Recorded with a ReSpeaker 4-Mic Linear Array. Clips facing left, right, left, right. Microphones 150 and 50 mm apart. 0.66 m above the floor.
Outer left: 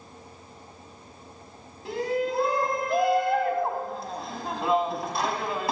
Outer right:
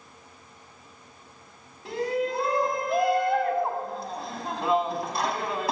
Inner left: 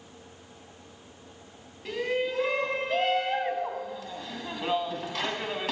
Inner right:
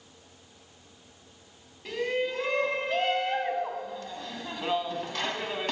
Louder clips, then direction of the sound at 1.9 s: Even, even; centre (ahead or behind).